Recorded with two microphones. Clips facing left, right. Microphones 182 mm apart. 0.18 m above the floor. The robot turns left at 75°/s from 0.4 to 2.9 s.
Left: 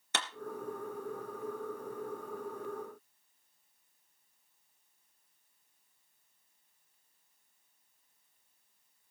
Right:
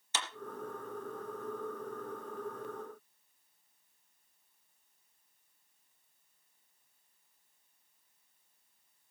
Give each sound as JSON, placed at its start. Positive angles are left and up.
{"t": 0.1, "sound": "a clap", "side_deg": 65, "distance_m": 3.0}